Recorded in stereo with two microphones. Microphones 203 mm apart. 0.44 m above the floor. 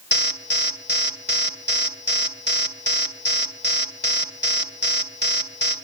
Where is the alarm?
55° left (ahead or behind), 2.5 m.